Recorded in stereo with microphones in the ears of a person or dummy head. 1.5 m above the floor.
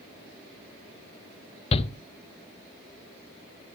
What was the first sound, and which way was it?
A shout, 35° left (ahead or behind).